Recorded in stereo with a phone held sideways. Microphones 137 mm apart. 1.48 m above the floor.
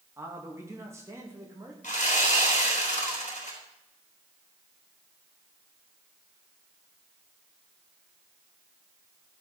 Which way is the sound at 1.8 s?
70° left (ahead or behind).